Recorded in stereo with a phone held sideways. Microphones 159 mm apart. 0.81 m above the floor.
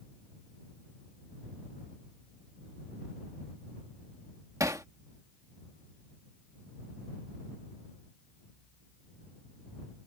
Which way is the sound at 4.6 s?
20° right (ahead or behind).